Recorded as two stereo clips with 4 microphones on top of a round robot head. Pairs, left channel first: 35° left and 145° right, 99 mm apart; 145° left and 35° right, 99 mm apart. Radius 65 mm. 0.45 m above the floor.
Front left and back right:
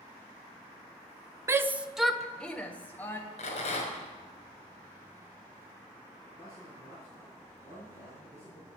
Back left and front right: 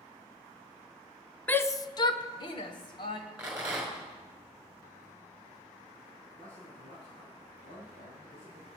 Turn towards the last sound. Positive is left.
turn(degrees=110)